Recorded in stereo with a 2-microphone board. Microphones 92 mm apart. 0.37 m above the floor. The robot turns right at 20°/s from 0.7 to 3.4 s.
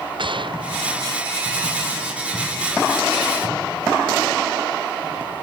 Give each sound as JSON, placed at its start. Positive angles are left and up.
{"t": 0.2, "sound": "a gunshot", "side_deg": -65}